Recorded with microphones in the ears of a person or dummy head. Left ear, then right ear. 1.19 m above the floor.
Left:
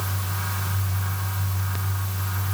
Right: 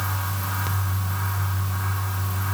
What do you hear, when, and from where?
Only background noise.